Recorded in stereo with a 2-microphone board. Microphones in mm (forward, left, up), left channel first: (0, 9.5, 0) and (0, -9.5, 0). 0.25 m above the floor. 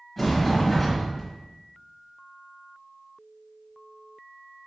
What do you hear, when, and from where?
0.2 s a sliding door: centre (ahead or behind), 1.6 m